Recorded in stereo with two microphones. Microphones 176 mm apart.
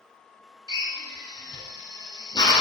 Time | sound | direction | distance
0.7 | a drill | 25° left (ahead or behind) | 0.8 m